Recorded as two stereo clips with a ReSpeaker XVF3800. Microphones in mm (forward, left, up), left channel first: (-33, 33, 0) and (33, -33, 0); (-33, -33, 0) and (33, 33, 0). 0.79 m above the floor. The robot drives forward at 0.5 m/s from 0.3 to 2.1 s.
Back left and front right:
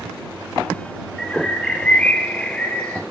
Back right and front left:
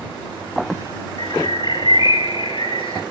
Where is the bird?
150° right, 1.8 m; by 3.0 s 155° right, 2 m.